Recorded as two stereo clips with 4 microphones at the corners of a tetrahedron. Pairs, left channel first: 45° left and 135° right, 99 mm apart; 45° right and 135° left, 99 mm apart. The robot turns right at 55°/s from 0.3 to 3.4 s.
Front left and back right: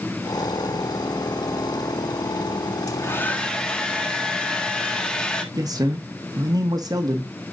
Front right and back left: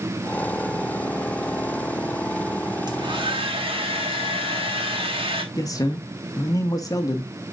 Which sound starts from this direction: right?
A man speaking, at 5.5 s.